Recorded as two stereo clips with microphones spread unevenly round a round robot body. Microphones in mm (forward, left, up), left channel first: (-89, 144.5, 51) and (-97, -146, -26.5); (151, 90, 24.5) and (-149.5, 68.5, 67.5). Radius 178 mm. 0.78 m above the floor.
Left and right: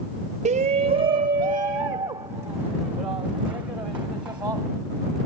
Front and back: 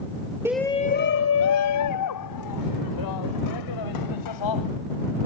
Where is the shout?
90° right; by 4.7 s 5° right.